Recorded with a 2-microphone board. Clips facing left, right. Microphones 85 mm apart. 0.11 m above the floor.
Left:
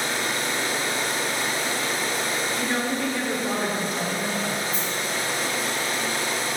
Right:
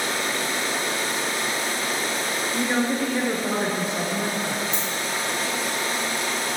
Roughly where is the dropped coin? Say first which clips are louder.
Even; right.